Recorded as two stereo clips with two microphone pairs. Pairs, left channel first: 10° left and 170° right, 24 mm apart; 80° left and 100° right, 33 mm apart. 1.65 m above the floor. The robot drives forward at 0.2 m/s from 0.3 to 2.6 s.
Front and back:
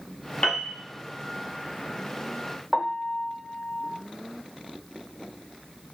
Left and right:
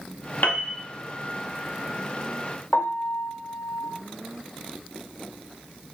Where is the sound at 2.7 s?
90° left, 0.6 m.